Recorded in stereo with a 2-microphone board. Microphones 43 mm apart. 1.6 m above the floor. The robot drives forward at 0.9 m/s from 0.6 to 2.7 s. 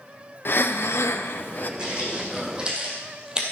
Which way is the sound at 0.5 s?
55° left (ahead or behind).